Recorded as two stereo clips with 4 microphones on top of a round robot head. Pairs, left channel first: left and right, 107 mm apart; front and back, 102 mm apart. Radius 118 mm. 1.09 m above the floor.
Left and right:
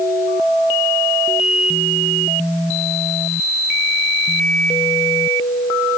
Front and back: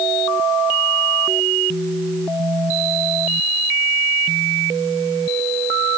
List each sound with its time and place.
Only background noise.